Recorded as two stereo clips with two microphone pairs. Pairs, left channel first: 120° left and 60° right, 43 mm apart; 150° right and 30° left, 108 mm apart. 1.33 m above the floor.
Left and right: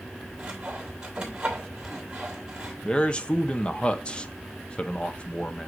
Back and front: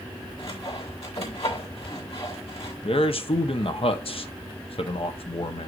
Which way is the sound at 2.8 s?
175° right.